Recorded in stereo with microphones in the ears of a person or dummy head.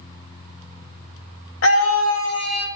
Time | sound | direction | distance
1.6 | a scream | 70° left (ahead or behind) | 2 m